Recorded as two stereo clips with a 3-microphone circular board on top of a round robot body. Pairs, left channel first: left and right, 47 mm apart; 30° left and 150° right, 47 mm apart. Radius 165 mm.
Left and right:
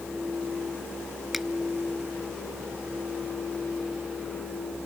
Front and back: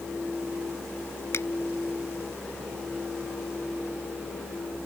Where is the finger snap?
Straight ahead.